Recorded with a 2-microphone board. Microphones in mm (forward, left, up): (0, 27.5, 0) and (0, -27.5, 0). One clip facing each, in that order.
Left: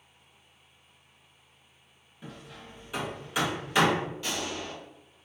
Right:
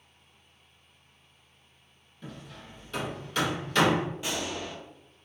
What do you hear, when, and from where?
2.2 s hammering: 10° left (ahead or behind), 0.7 m
4.2 s a gunshot: 15° right (ahead or behind), 0.9 m